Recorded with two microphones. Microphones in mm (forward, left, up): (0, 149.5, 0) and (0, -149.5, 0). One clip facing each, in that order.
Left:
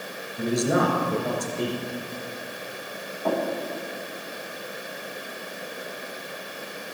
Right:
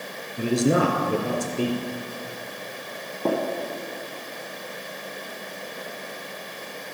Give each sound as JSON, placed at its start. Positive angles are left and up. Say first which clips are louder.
{"t": 0.4, "sound": "a man speaking", "louder": "right 2 dB", "side_deg": -35, "distance_m": 2.5}
{"t": 3.2, "sound": "tapping", "louder": "right 2 dB", "side_deg": -50, "distance_m": 4.0}